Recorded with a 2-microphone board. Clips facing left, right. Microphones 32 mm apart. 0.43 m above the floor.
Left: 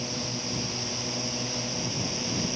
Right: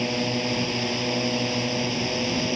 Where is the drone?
45° right (ahead or behind); by 2.5 s 35° right (ahead or behind).